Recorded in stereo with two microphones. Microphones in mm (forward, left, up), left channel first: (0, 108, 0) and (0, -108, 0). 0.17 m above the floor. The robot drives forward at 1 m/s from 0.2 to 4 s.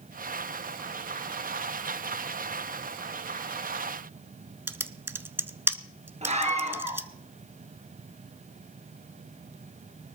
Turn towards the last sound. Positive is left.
turn(degrees=-30)  # may be behind; listen again after turning